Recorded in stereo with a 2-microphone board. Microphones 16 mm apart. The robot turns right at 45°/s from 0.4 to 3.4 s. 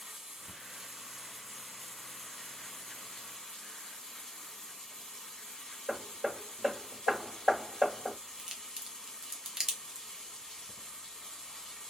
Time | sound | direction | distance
0.0 | running water | 60° right | 1.5 m
5.9 | hammering | 15° left (ahead or behind) | 1.3 m
8.4 | a crack | 45° right (ahead or behind) | 0.7 m